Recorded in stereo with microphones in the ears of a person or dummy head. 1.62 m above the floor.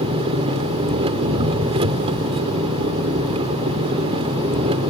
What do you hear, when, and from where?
0.0 s an engine running: 25° right (ahead or behind)